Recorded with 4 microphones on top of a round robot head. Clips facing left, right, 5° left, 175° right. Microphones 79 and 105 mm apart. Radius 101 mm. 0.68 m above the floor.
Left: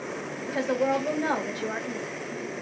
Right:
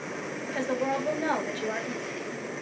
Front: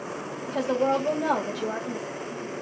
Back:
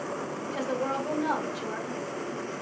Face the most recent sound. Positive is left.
turn(degrees=10)